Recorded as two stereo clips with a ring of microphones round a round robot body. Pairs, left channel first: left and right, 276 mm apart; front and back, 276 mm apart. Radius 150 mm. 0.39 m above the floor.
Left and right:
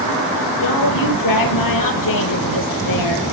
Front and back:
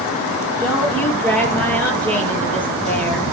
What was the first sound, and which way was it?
A woman speaking, 85° left.